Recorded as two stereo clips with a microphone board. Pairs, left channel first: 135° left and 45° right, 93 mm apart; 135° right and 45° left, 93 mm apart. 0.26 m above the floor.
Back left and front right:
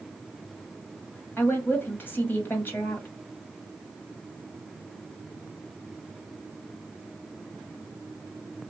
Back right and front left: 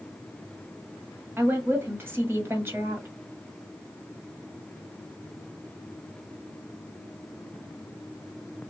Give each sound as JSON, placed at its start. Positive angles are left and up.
{"t": 1.4, "sound": "a woman speaking", "azimuth_deg": 85, "distance_m": 1.5}